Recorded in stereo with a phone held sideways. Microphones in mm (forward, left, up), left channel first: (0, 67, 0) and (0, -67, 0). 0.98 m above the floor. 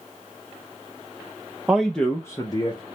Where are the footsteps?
No footsteps in this recording.